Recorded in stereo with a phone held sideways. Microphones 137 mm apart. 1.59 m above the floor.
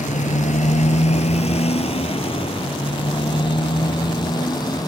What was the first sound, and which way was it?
A motorcycle, 65° left (ahead or behind).